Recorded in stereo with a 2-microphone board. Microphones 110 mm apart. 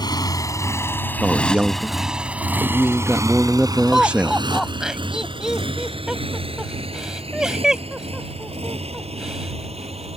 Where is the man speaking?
10° right (ahead or behind).